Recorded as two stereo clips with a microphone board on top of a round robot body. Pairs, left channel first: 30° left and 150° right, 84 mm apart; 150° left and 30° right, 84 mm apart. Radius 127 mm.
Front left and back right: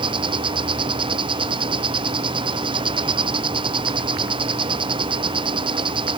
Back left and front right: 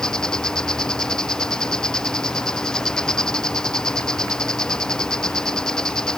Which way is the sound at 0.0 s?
130° right.